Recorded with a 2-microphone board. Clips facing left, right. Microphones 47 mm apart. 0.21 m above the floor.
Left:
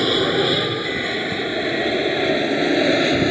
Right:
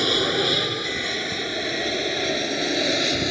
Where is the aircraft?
10° left (ahead or behind); by 3.3 s 20° left (ahead or behind).